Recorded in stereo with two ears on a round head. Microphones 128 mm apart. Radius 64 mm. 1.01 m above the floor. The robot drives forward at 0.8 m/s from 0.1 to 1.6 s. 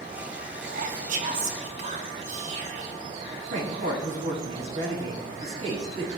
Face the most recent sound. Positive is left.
turn(degrees=-55)  # may be behind; listen again after turning